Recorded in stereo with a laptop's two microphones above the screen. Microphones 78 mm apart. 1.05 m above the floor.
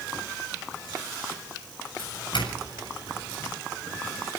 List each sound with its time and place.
2.0 s a doorbell: 75° left (ahead or behind), 7.5 m